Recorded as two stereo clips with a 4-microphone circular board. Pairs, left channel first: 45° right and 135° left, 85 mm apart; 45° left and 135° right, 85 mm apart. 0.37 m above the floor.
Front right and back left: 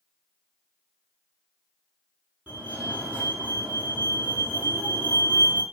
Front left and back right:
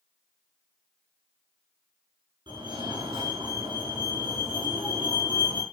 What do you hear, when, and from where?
2.5 s a fire alarm: 150° right, 7 m